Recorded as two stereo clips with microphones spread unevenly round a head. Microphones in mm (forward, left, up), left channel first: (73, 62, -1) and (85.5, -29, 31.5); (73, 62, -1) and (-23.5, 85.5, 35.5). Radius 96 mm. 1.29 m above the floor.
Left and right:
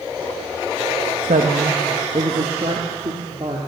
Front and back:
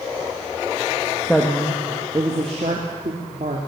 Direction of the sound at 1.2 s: 100° right.